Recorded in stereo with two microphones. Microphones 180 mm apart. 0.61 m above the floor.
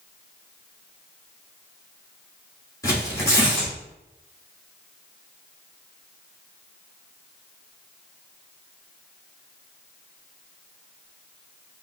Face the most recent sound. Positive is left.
turn(degrees=20)  # may be behind; listen again after turning